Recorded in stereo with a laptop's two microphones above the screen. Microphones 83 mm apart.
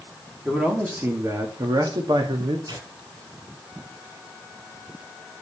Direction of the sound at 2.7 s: 50° right (ahead or behind).